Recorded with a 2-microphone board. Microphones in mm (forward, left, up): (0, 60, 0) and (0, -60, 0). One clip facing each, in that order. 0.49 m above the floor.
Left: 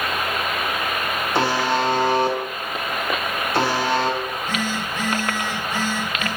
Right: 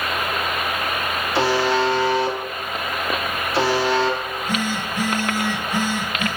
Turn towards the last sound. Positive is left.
turn(degrees=-15)  # may be behind; listen again after turning